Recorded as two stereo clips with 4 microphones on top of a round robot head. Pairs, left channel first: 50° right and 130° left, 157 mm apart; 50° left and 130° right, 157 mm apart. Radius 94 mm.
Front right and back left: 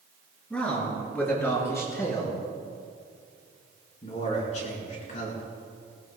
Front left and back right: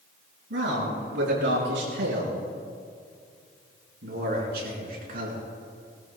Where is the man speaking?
135° right, 6.5 m; by 5.4 s 90° right, 5 m.